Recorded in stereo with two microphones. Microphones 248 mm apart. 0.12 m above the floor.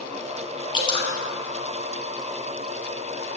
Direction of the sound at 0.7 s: 20° left (ahead or behind).